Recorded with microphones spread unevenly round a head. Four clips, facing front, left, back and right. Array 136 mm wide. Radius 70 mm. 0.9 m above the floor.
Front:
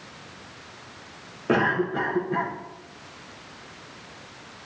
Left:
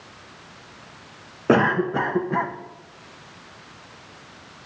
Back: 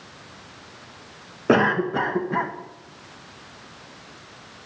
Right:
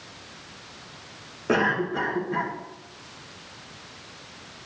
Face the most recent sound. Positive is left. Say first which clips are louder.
# left 5 dB, back 4 dB
turn(degrees=135)